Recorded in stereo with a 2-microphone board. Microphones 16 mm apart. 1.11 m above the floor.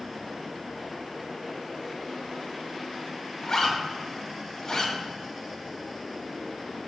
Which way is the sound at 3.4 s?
40° left (ahead or behind).